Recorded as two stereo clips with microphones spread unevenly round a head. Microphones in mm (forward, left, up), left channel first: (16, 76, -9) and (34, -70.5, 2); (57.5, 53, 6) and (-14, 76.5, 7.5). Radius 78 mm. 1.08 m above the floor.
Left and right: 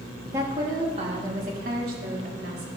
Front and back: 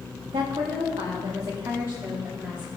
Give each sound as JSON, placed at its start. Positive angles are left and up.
{"t": 0.2, "sound": "a woman speaking", "azimuth_deg": -160, "distance_m": 1.6}